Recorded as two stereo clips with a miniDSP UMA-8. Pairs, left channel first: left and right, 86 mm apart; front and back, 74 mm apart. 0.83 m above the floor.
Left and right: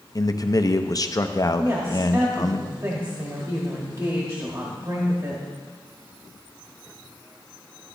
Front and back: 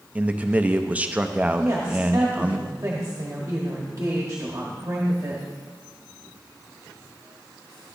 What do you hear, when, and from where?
0.1 s a man speaking: 115° left, 0.6 m
1.6 s a woman speaking: 135° right, 1.4 m